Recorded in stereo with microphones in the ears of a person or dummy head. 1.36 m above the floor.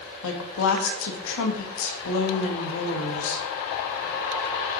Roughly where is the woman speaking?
Left.